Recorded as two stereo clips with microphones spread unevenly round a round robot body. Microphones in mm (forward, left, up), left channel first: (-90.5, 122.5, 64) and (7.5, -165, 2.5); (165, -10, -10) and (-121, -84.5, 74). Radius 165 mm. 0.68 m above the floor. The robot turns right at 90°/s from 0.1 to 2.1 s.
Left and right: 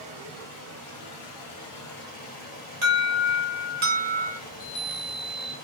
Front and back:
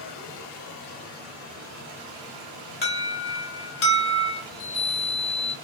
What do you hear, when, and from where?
0.0 s running water: 5° right, 1.0 m; by 5.6 s 175° left, 1.0 m
2.8 s an alarm: 25° right, 1.0 m
4.5 s a chime: 50° left, 1.1 m